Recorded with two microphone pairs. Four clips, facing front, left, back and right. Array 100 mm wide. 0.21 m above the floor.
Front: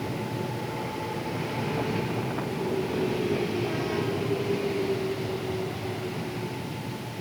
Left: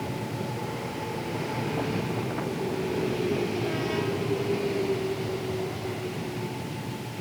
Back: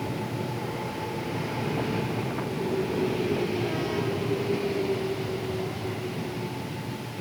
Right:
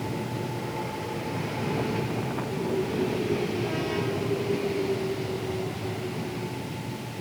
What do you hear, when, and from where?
Only background noise.